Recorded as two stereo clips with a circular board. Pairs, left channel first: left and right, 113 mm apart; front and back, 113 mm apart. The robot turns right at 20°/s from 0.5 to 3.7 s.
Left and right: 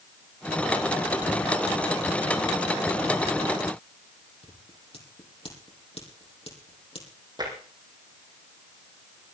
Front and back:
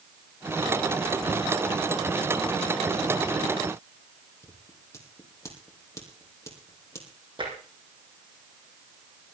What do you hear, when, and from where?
4.4 s scissors: 60° left, 6 m
7.4 s tapping: 140° right, 5.5 m